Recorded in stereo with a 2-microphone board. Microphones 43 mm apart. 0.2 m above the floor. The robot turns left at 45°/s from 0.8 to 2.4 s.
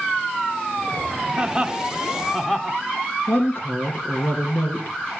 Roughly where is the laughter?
Centre.